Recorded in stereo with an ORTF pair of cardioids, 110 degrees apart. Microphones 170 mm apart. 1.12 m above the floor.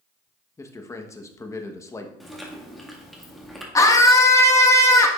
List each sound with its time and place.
0.6 s a man speaking: 15° left, 1.0 m
2.2 s chewing: straight ahead, 1.7 m
3.8 s a scream: 20° left, 1.3 m